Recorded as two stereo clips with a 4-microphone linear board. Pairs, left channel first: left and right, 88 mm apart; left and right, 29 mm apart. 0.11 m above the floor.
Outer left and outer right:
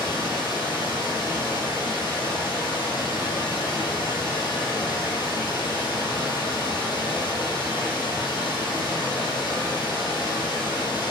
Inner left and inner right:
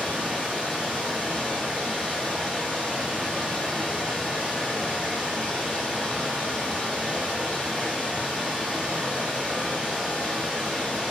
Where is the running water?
55° left (ahead or behind), 1.4 m.